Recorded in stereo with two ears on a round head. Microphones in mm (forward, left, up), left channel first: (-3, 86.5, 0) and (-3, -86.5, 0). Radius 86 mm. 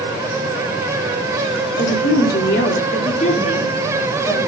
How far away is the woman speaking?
About 3 m.